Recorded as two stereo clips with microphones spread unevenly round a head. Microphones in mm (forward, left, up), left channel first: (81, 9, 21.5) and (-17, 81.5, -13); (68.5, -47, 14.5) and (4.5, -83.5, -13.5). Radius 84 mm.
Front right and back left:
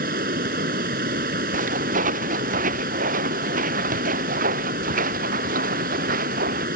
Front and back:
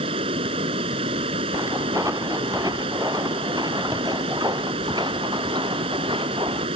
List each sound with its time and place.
0.0 s running water: 170° right
1.5 s footsteps: 135° left; by 6.7 s 145° left